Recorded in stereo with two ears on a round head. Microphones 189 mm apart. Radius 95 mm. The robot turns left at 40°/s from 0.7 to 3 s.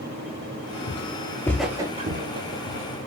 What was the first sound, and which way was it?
Footsteps, 50° left (ahead or behind).